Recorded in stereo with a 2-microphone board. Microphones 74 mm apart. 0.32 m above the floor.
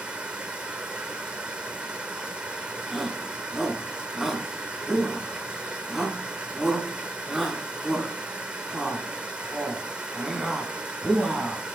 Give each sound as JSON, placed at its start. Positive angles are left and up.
{"t": 0.0, "sound": "running water", "side_deg": -15, "distance_m": 1.6}
{"t": 2.9, "sound": "a shout", "side_deg": -5, "distance_m": 2.5}